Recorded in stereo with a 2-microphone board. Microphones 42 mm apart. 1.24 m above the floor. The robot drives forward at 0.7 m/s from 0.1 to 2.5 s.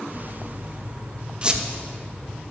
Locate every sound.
1.4 s a squeak: 30° right (ahead or behind), 1.1 m; by 1.6 s 25° right (ahead or behind), 1.2 m